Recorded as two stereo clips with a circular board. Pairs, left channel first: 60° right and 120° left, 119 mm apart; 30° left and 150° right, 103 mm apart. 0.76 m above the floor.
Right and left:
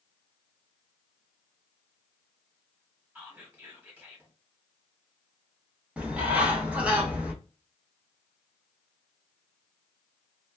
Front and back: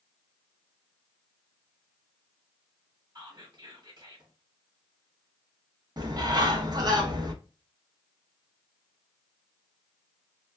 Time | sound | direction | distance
3.1 | whispering | 170° right | 1.6 m
6.0 | a bird | 165° right | 0.7 m